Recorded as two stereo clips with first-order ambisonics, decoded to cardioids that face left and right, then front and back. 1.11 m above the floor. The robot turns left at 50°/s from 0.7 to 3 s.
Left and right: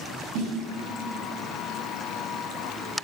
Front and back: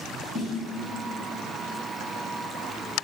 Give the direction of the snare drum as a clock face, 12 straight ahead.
2 o'clock.